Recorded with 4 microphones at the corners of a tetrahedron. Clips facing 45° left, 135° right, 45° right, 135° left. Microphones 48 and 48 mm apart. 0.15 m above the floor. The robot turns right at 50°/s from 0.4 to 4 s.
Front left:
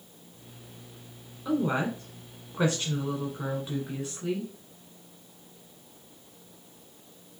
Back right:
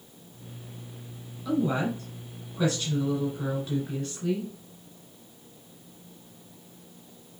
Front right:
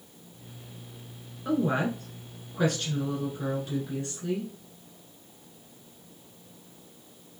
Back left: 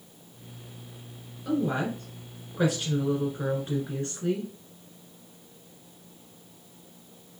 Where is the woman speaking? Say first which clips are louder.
Back right 1 dB, front right 1 dB; 5° right, 1.4 m; by 4.5 s 125° left, 1.4 m.